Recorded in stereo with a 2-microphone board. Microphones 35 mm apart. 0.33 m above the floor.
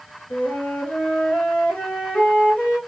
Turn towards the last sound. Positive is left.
turn(degrees=40)  # may be behind; listen again after turning